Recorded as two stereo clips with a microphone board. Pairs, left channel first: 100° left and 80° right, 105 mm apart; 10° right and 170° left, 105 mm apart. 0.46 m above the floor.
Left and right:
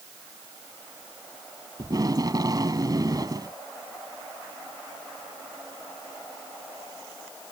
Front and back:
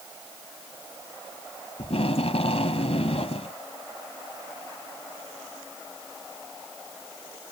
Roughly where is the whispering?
No whispering in this recording.